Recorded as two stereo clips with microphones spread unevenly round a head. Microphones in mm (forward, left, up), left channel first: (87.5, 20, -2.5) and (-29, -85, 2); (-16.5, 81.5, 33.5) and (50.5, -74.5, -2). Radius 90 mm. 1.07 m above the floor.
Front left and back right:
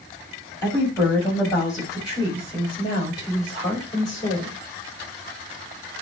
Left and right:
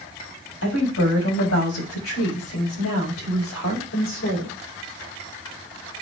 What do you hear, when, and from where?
0.6 s a woman speaking: 120° left, 7 m; by 4.6 s 110° left, 5 m